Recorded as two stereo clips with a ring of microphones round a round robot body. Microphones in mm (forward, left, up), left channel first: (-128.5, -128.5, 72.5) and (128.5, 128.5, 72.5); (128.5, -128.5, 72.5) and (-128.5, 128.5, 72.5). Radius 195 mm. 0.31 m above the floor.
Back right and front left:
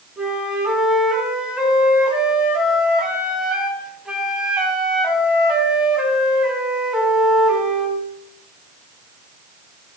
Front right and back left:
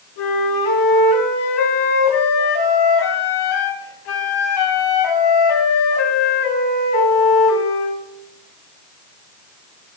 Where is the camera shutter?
No camera shutter in this recording.